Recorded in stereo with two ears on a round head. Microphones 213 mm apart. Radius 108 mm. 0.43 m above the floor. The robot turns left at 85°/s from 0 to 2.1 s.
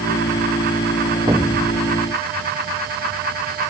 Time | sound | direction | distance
1.3 | an explosion | 165° right | ?